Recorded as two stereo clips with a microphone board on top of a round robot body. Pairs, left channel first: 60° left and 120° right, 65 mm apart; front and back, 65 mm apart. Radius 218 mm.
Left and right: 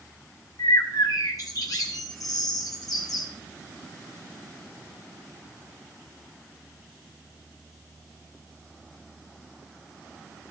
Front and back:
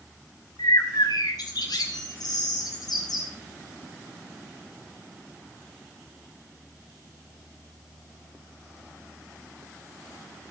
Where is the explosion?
I don't hear an explosion.